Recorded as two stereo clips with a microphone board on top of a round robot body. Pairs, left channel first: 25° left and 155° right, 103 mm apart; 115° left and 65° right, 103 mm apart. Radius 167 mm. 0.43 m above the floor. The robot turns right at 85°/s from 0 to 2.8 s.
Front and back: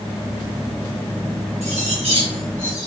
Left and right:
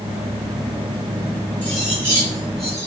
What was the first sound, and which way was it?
Cutlery clinking, 175° right.